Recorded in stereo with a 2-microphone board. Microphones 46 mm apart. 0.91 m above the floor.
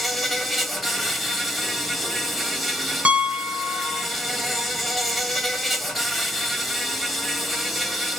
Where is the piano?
30° right (ahead or behind), 0.7 m.